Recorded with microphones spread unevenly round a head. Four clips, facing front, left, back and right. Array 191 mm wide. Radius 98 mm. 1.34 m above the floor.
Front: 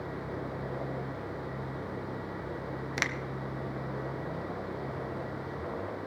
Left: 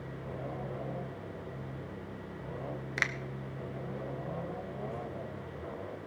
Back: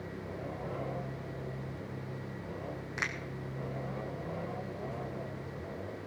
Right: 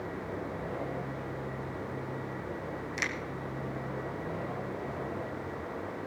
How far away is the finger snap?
About 0.6 m.